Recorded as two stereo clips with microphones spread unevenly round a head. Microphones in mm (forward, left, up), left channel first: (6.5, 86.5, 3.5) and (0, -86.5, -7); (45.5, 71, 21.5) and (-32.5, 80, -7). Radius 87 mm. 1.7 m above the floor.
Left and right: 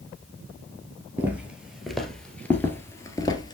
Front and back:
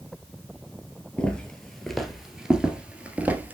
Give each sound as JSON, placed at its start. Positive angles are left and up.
{"t": 1.2, "sound": "footsteps", "azimuth_deg": -15, "distance_m": 1.8}